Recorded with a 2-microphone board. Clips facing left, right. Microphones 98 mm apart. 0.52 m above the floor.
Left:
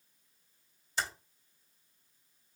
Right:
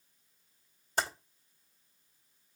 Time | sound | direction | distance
1.0 | typing on a keyboard | 50° right (ahead or behind) | 2 m